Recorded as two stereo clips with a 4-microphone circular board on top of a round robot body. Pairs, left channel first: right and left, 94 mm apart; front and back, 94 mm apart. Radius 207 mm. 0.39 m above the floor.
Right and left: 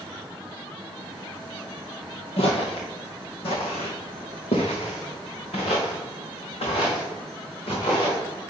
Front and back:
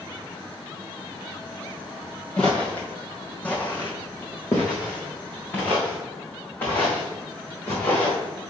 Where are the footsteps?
80° right, 0.6 m; by 8.2 s 70° right, 4.5 m.